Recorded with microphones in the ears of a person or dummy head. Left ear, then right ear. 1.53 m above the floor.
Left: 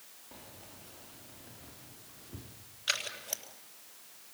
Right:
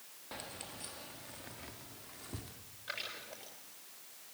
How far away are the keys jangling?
About 1.4 m.